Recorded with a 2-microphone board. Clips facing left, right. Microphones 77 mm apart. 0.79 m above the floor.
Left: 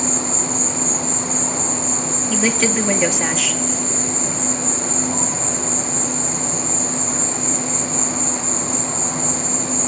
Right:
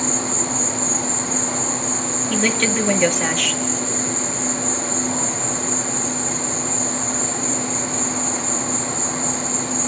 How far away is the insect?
About 4 m.